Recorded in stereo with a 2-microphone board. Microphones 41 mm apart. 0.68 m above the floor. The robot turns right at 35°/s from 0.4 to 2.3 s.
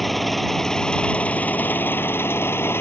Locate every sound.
0.0 s an engine running: straight ahead; by 2.8 s 70° left